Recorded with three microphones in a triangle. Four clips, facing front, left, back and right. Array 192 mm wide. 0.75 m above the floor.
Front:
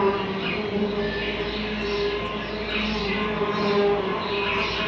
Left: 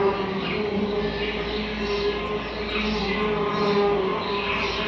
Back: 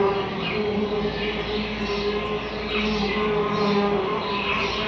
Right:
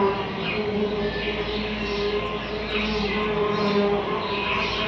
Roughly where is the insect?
Behind.